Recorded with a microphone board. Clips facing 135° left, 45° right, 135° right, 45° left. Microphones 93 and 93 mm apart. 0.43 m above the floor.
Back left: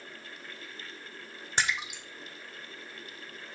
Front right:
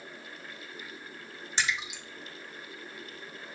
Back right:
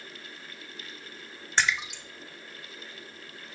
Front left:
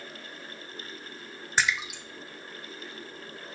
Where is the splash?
125° left, 0.9 m.